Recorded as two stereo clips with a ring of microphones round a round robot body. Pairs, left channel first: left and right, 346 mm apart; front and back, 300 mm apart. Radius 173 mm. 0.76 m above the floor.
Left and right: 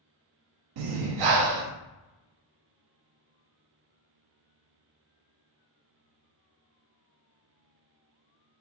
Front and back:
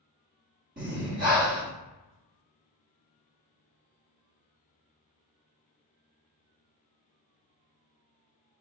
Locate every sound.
0.8 s breathing: 115° right, 0.5 m